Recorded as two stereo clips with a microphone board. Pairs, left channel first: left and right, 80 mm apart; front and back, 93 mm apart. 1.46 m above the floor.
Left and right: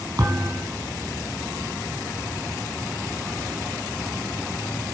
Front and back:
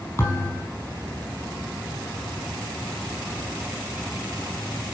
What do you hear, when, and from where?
0.2 s a thud: 60° right, 6 m